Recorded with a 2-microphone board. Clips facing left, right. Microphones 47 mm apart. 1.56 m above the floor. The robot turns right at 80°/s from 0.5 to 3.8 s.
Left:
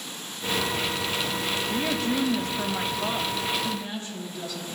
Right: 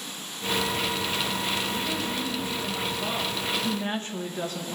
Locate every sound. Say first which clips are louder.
1.7 s a woman speaking: left 3 dB; 55° left, 1.5 m; by 4.8 s 135° right, 1.5 m